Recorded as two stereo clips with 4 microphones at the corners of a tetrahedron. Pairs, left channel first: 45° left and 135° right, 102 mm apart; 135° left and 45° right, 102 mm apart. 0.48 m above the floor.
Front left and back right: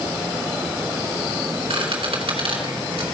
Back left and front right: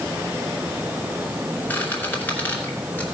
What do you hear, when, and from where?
1.7 s a squeak: 155° right, 2.5 m